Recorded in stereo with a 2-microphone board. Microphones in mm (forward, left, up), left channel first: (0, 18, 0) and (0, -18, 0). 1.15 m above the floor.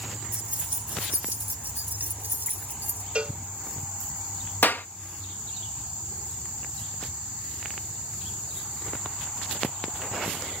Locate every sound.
0.3 s keys jangling: 40° right (ahead or behind); by 3.0 s 75° right (ahead or behind)
3.1 s a cowbell: 35° right (ahead or behind)
4.6 s a clap: 75° left (ahead or behind)